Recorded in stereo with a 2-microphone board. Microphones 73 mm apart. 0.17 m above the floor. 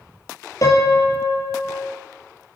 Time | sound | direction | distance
0.6 | a piano | 50° left (ahead or behind) | 2.5 m